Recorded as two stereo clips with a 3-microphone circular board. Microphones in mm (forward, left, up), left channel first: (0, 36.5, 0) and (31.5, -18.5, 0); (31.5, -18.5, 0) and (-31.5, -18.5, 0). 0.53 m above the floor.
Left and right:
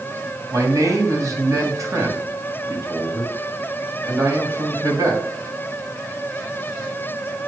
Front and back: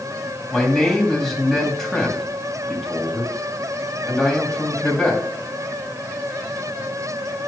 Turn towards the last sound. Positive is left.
turn(degrees=-85)